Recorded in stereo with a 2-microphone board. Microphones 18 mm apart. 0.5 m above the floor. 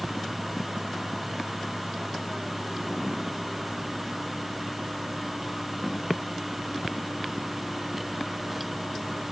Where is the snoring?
I don't hear snoring.